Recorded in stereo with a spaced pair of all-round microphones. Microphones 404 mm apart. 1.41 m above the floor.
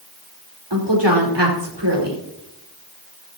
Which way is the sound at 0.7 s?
75° right (ahead or behind).